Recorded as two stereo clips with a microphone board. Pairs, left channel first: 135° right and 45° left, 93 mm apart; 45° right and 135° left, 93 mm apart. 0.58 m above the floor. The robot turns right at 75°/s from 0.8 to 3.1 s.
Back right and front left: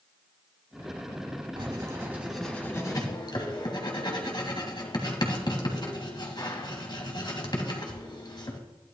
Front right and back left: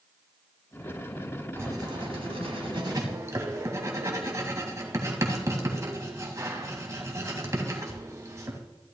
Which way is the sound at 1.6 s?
75° left.